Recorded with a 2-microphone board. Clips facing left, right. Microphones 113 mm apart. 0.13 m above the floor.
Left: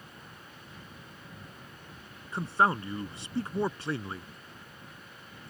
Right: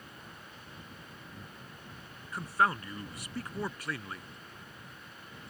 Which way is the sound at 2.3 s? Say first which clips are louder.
Left 3 dB; 25° left (ahead or behind).